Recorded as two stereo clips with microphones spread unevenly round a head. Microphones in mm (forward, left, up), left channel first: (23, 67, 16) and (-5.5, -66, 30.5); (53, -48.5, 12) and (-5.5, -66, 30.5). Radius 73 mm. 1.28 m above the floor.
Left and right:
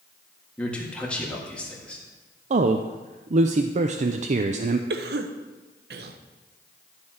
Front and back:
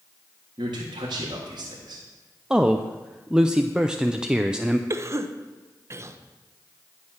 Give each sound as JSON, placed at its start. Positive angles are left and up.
{"t": 0.6, "sound": "a man speaking", "azimuth_deg": 160, "distance_m": 1.8}
{"t": 2.5, "sound": "a man speaking", "azimuth_deg": -75, "distance_m": 0.5}
{"t": 4.9, "sound": "a cough", "azimuth_deg": -115, "distance_m": 0.9}